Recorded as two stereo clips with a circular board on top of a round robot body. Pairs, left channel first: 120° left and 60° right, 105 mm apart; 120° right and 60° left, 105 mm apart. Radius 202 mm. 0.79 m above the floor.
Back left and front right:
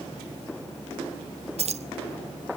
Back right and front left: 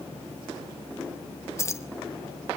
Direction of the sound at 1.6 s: 55° right.